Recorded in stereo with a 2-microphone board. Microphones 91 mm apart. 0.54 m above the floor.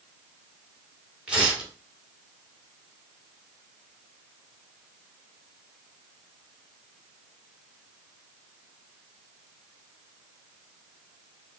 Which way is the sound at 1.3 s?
10° right (ahead or behind).